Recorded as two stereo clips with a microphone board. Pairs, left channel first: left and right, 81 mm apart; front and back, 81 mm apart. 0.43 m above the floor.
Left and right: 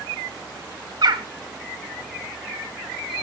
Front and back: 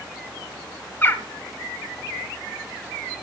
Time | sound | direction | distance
1.0 | a bird | 65° right | 1.3 m